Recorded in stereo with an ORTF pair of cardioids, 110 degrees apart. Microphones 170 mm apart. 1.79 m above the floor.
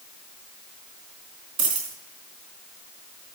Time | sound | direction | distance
1.6 | a dropped coin | 50° right | 4 m